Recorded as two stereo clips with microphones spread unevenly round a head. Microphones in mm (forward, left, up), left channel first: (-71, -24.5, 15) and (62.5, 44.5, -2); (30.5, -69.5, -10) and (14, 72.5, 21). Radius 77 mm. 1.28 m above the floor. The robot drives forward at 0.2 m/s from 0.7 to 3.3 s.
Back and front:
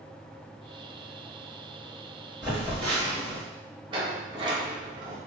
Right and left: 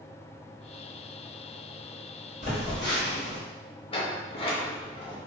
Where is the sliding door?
30° right, 0.7 m.